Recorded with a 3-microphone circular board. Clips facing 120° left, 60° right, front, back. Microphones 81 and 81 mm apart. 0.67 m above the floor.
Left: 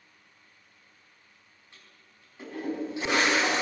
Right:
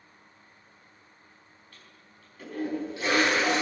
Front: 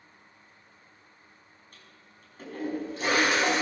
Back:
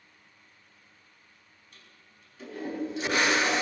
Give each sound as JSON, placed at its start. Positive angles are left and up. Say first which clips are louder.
{"t": 1.7, "sound": "a toilet flushing", "louder": "right 1 dB, front 1 dB", "azimuth_deg": 50, "distance_m": 5.0}